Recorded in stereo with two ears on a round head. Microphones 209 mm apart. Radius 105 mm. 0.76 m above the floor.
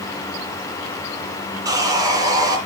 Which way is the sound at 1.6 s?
15° right (ahead or behind).